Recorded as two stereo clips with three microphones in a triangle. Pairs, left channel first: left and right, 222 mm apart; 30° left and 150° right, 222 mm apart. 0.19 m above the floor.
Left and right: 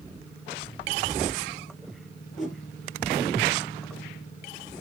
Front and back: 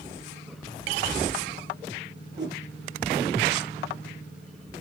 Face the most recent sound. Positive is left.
turn(degrees=180)